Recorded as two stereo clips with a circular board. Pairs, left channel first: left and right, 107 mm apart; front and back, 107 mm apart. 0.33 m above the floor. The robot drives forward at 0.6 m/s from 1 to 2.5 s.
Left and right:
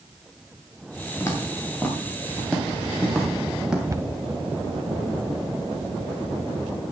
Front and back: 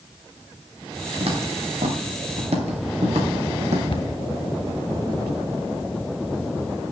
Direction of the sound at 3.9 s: 30° right.